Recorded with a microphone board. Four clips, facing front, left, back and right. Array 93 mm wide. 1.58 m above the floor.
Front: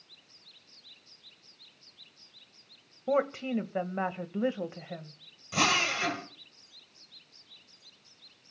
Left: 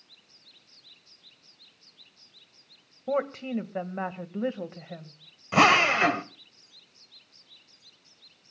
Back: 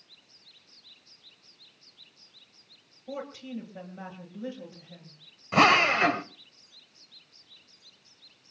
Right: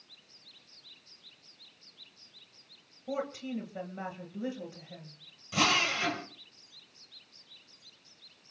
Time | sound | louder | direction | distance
3.1 | a woman speaking | left 7 dB, front 10 dB | 40° left | 1.7 m
5.5 | a drill | left 9 dB, back 8 dB | 130° left | 1.0 m